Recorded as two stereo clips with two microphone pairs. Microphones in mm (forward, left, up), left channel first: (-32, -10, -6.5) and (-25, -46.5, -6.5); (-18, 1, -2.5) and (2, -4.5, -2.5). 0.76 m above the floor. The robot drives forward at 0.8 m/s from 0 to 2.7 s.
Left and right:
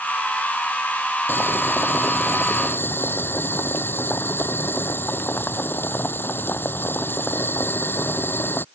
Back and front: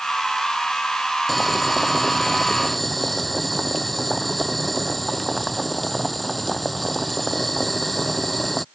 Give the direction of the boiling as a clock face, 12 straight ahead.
9 o'clock.